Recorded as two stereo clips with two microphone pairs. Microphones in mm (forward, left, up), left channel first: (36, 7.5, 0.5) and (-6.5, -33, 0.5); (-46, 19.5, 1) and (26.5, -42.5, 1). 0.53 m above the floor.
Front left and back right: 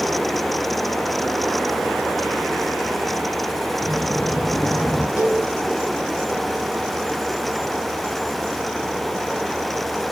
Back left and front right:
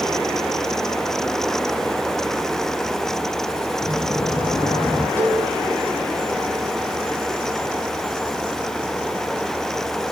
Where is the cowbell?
75° left, 4 m.